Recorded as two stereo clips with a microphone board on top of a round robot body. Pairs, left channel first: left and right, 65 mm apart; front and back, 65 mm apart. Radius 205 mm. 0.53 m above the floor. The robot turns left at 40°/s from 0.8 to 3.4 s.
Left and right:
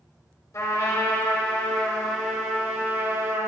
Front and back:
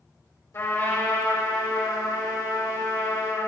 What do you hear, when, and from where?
0.5 s a trumpet: 45° left, 4.5 m; by 3.5 s 60° right, 4.5 m